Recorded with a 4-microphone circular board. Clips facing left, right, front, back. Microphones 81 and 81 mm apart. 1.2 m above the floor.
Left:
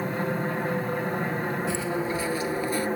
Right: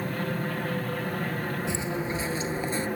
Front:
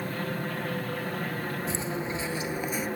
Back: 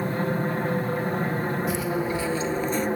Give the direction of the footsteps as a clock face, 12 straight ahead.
1 o'clock.